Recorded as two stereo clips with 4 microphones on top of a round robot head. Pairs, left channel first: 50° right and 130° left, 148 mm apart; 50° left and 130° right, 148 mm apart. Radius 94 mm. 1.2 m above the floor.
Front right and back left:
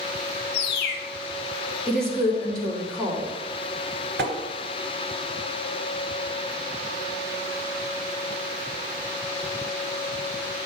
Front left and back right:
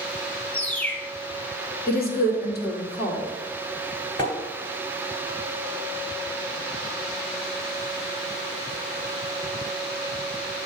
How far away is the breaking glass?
I don't hear breaking glass.